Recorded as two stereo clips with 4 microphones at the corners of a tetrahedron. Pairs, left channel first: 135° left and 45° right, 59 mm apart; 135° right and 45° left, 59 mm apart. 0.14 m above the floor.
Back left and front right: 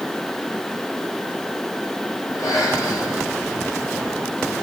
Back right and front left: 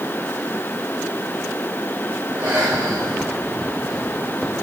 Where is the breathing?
110° left, 9.5 m.